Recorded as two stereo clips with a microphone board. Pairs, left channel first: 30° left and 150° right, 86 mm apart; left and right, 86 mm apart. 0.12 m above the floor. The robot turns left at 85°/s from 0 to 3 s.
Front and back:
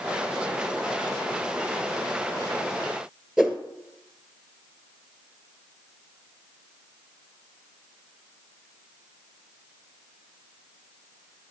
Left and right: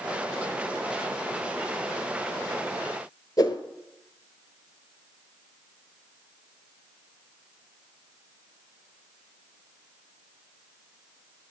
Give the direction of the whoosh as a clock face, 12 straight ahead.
8 o'clock.